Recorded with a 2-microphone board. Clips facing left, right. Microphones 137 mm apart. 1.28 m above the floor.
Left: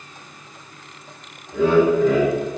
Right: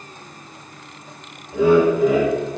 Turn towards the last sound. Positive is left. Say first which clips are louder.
# right 1 dB
turn(degrees=-10)  # may be behind; listen again after turning